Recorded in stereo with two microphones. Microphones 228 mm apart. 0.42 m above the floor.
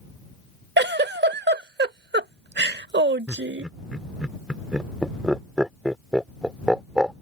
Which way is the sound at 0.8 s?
50° right (ahead or behind).